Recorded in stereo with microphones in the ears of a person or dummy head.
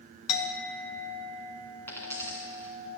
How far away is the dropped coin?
About 2.5 m.